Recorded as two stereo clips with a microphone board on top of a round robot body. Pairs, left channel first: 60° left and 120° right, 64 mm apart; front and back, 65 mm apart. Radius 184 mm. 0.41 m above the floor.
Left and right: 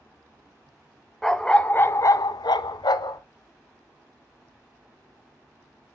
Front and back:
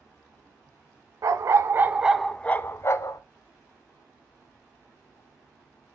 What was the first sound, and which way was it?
A dog barking, 145° left.